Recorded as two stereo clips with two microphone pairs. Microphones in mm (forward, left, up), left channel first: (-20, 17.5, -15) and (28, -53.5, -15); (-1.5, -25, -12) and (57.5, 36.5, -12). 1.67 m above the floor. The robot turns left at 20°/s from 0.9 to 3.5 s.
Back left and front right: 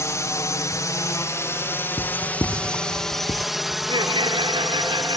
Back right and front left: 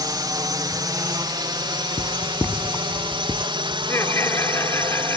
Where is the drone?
75° left; by 5.2 s 35° left.